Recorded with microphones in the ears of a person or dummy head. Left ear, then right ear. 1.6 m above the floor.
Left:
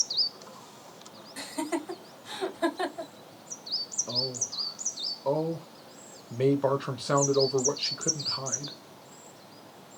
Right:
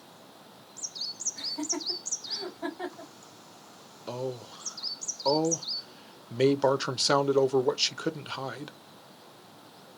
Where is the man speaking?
55° right (ahead or behind), 0.7 m.